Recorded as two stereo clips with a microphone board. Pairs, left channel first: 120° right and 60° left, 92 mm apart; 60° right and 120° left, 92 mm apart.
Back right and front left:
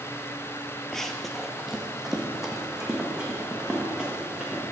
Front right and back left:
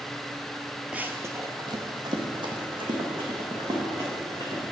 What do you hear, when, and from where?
0.9 s running footsteps: 165° left, 0.5 m; by 4.6 s 140° left, 3 m